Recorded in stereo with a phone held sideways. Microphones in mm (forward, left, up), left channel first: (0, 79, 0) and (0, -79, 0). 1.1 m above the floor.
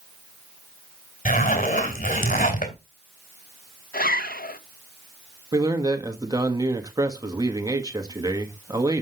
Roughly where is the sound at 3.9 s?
Left.